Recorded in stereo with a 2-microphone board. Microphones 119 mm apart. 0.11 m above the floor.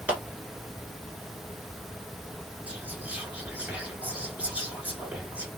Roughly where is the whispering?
Centre.